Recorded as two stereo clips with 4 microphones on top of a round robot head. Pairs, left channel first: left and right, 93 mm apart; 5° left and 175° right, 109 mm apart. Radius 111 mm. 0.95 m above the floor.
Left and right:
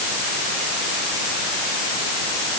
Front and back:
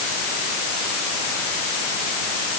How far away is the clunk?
I don't hear a clunk.